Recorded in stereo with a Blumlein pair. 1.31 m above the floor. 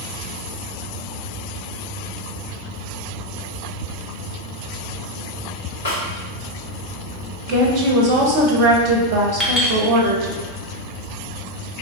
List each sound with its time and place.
5.8 s a snare drum: 60° left, 1.4 m
7.5 s a woman speaking: 40° right, 0.7 m
9.4 s a clink: 10° left, 0.9 m